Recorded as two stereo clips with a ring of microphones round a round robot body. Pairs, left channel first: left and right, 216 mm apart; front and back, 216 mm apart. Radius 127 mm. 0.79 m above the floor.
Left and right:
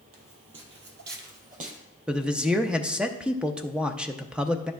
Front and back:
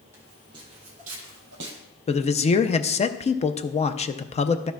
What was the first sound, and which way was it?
Footsteps, 100° right.